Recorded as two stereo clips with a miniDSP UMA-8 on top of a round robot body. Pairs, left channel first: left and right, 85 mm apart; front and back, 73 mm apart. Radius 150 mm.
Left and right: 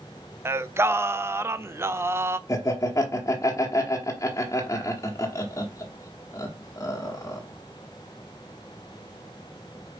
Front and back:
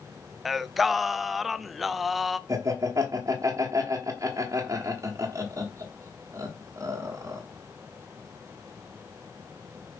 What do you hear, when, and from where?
0.5 s singing: 90° right, 0.7 m
2.5 s laughter: 140° left, 1.3 m